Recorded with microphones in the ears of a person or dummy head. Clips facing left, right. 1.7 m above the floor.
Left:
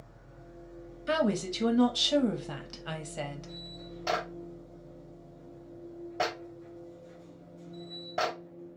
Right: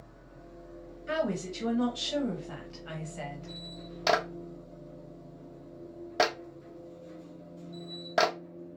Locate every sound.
0.0 s a machine running: 55° right (ahead or behind), 1.4 m
1.1 s a woman speaking: 60° left (ahead or behind), 0.6 m
4.1 s a clap: 70° right (ahead or behind), 0.6 m